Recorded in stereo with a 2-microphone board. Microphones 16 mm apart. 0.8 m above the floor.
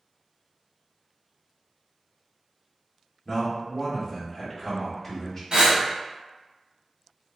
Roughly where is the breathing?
Right.